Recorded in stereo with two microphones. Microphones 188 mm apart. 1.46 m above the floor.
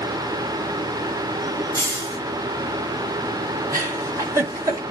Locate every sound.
1.7 s a hiss: 20° right (ahead or behind), 7 m
3.7 s a giggle: 20° right (ahead or behind), 5.5 m